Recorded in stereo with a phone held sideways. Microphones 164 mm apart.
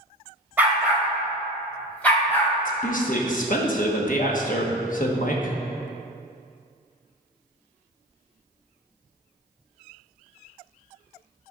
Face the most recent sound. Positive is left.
turn(degrees=55)  # may be behind; listen again after turning